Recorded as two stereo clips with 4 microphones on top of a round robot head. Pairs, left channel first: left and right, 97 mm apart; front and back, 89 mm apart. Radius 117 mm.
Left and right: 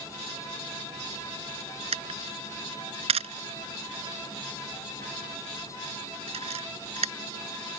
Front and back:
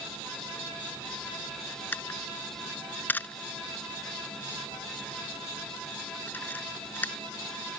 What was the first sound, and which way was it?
A camera shutter, 75° right.